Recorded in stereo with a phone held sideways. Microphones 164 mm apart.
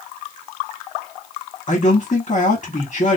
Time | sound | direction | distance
1.7 | a man speaking | 45° left (ahead or behind) | 1.2 m